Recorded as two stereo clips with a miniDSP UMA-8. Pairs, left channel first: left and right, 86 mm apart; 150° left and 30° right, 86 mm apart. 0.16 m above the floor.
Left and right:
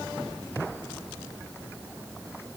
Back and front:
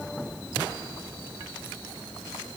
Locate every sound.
Only background noise.